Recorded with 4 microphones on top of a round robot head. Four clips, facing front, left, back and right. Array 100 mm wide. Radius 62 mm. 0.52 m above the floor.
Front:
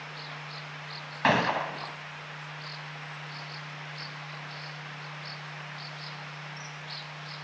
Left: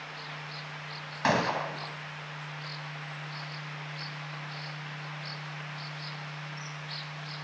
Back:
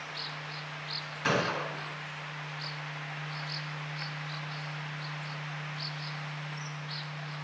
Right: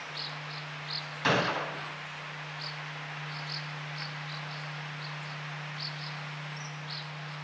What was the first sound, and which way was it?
A gunshot, 25° left.